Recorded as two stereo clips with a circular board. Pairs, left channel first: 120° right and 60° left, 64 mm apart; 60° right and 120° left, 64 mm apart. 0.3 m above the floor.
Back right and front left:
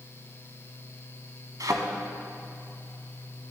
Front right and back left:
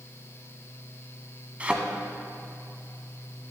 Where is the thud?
55° left, 1.2 m.